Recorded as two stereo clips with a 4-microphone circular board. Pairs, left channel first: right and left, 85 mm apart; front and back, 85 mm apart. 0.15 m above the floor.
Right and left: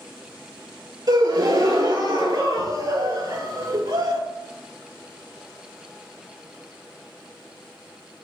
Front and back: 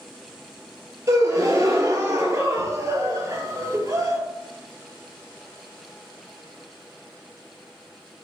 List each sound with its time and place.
1.1 s a gasp: 130° left, 0.6 m